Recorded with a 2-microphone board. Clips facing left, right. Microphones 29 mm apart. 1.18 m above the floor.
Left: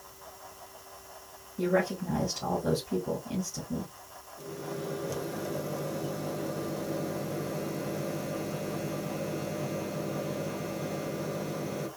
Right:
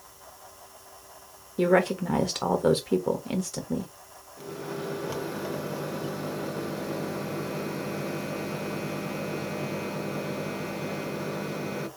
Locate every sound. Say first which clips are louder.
1.6 s a woman speaking: right 5 dB; 90° right, 1.0 m
4.4 s a microwave: right 3 dB; 35° right (ahead or behind), 1.0 m